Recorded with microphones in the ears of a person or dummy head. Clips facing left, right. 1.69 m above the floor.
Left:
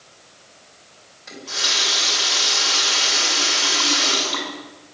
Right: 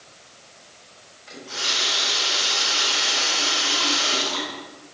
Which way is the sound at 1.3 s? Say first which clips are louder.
Left 2 dB; 70° left (ahead or behind).